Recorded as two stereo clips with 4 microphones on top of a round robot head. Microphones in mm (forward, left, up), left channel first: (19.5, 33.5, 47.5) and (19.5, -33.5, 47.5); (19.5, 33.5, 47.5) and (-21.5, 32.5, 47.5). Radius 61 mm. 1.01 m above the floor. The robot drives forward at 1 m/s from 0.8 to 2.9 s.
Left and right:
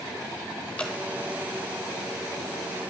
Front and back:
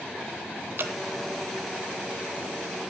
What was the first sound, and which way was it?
Dripping, 165° left.